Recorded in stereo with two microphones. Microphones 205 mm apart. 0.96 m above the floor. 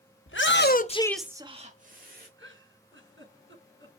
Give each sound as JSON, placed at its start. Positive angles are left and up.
{"t": 0.3, "sound": "a shout", "side_deg": 75, "distance_m": 1.5}
{"t": 2.4, "sound": "a giggle", "side_deg": -70, "distance_m": 4.5}